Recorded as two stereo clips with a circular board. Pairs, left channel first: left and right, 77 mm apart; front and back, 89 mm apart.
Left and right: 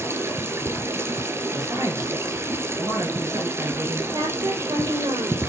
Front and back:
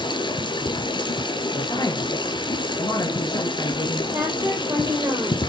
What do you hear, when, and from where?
0.0 s running water: 35° right, 2.5 m
1.5 s a woman speaking: 45° right, 4 m
4.1 s a woman speaking: 120° right, 6 m